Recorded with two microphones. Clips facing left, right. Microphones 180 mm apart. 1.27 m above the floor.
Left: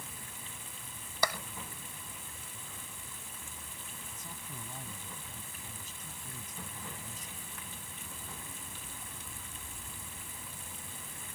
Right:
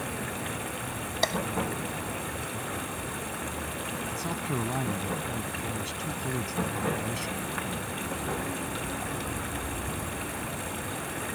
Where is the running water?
75° right (ahead or behind).